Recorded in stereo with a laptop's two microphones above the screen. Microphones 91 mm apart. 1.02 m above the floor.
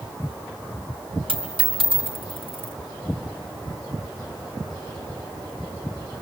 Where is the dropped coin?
80° right, 3 m.